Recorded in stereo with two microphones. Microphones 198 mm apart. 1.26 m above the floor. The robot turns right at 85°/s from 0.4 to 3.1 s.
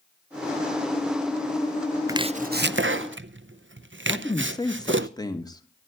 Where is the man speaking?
20° left (ahead or behind), 1.5 m.